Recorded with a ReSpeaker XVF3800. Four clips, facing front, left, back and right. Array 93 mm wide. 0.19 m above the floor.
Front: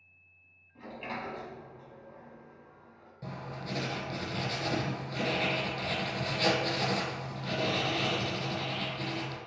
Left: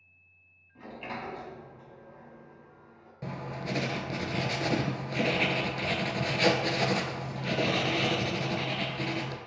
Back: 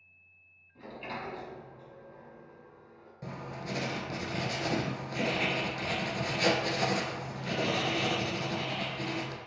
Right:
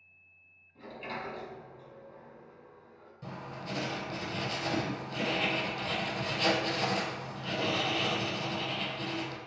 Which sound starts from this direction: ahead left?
A sliding door, at 0.8 s.